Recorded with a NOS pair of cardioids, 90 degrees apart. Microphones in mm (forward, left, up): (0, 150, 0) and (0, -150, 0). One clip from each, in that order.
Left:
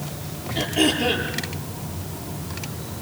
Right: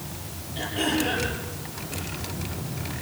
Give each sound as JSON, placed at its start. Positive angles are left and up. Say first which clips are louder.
{"t": 0.6, "sound": "throat clearing", "louder": "left 5 dB", "azimuth_deg": 55, "distance_m": 9.5}